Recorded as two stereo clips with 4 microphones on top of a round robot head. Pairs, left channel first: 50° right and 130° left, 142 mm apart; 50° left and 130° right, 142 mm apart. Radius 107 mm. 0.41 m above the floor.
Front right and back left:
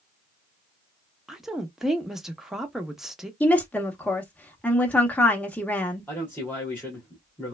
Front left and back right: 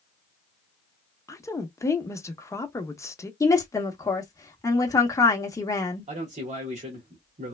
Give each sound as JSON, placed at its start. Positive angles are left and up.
{"t": 1.3, "sound": "a woman speaking", "azimuth_deg": 50, "distance_m": 0.8}
{"t": 3.4, "sound": "a woman speaking", "azimuth_deg": 15, "distance_m": 0.8}
{"t": 6.1, "sound": "a man speaking", "azimuth_deg": -125, "distance_m": 1.4}